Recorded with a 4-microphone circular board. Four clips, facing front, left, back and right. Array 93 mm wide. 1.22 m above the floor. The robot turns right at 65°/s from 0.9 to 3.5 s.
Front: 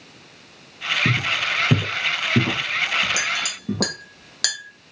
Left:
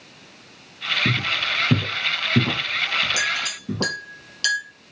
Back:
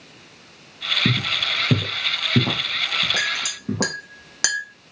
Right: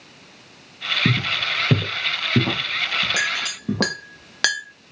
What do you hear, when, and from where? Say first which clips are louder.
1.1 s footsteps: right 2 dB, front 1 dB; 125° right, 1.4 m; by 3.9 s 105° right, 1.6 m
3.2 s a clink: right 1 dB, even; 130° right, 0.8 m; by 4.6 s 110° right, 0.8 m